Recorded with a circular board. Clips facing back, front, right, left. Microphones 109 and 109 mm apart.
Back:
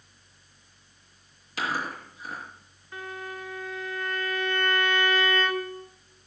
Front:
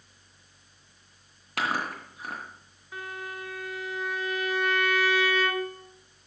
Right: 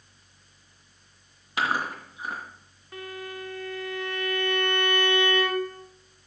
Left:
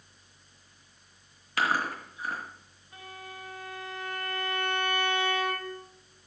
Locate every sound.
1.6 s chewing: 20° right, 2.5 m
2.9 s a violin: 85° right, 1.3 m